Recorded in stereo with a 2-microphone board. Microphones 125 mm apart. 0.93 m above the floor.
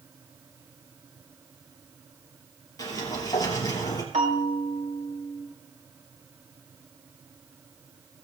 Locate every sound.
2.8 s a sliding door: 30° left (ahead or behind), 3 m
4.1 s a bell: 65° right (ahead or behind), 3.5 m